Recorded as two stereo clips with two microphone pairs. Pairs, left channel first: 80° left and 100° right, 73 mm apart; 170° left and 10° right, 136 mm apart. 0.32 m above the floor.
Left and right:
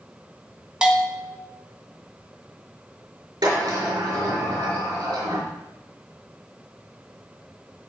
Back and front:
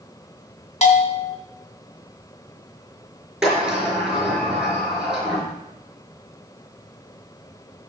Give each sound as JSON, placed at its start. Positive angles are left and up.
{"t": 0.8, "sound": "a bell", "azimuth_deg": -175, "distance_m": 2.0}
{"t": 3.4, "sound": "a sliding door", "azimuth_deg": -95, "distance_m": 5.0}